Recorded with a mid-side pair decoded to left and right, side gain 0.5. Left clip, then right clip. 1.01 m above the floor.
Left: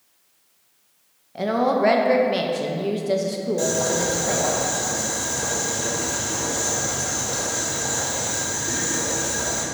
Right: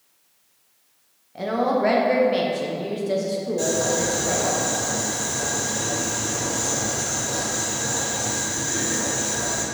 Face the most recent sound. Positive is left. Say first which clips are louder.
# even
turn(degrees=25)